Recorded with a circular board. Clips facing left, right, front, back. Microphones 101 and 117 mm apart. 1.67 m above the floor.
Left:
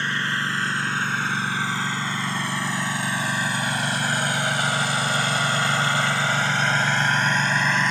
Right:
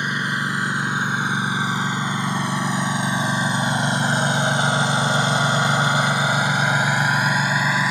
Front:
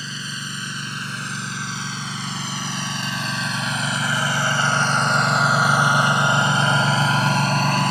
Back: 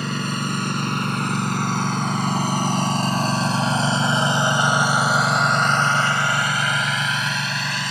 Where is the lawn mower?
165° right; by 7.9 s 10° right.